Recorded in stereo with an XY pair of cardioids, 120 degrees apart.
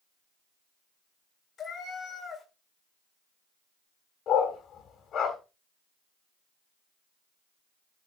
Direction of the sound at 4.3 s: 50° left.